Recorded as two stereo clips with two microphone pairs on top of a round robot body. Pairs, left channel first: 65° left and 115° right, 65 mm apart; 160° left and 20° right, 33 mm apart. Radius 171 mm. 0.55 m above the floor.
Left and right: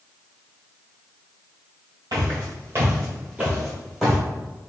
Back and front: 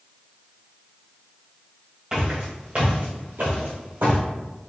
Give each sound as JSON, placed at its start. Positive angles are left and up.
{"t": 2.1, "sound": "footsteps", "azimuth_deg": -85, "distance_m": 1.1}